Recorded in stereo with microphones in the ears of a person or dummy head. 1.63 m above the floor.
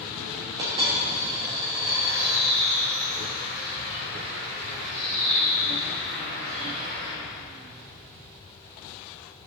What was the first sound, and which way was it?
A dropped coin, 25° right (ahead or behind).